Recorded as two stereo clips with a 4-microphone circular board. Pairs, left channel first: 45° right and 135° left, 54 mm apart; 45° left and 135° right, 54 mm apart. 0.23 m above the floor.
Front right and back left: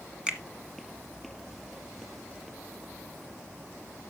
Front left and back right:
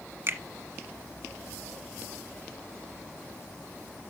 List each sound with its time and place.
0.3 s a finger snap: 160° right, 1.3 m